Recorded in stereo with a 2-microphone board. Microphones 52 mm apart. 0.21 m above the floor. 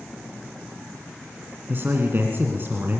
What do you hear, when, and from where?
1.7 s a man speaking: 40° right (ahead or behind), 2 m